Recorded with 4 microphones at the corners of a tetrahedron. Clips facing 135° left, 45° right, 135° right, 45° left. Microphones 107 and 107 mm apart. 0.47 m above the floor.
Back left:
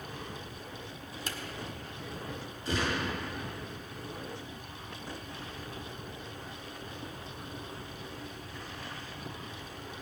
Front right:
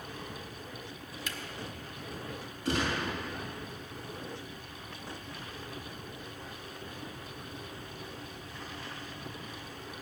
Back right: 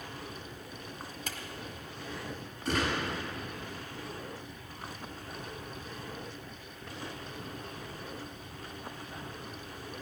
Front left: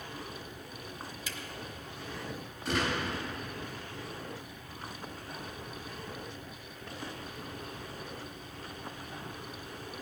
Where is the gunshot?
45° right, 5.5 m.